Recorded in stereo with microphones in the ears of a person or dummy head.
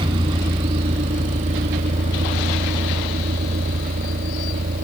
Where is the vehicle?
30° right (ahead or behind); by 4.8 s 50° right (ahead or behind).